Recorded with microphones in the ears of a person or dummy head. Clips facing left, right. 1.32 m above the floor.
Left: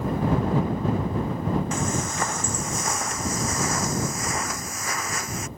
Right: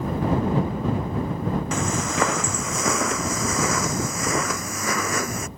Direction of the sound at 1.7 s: 70° right (ahead or behind).